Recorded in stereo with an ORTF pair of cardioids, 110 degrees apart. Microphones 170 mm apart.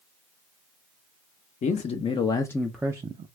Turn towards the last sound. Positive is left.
turn(degrees=-40)